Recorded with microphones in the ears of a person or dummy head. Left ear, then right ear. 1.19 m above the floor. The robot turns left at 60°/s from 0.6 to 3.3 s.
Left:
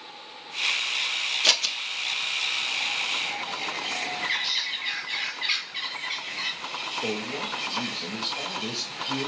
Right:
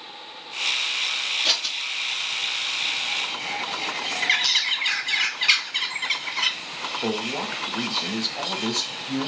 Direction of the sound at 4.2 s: 40° right (ahead or behind).